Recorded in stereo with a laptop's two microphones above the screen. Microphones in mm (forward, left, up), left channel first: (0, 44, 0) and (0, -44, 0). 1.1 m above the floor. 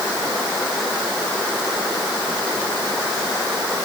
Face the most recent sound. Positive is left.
No sound to turn to.